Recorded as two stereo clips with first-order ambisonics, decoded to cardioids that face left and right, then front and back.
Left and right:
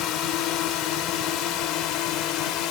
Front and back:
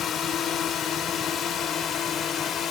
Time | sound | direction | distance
0.0 | a drone | 60° left | ?